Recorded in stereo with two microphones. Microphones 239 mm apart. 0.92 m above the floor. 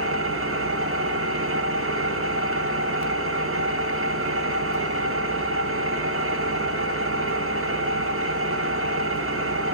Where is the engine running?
65° right (ahead or behind), 1.0 m.